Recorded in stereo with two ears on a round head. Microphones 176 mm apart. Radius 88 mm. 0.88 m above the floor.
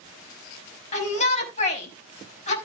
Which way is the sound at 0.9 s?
35° left (ahead or behind).